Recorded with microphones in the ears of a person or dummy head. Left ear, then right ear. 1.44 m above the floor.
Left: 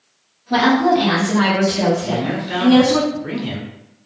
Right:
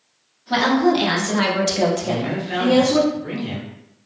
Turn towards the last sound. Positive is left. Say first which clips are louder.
# left 2 dB
turn(degrees=5)  # may be behind; listen again after turning